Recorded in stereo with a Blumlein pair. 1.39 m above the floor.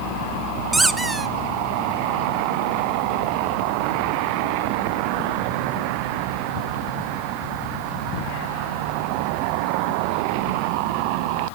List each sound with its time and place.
0.7 s a squeak: 10° right, 1.0 m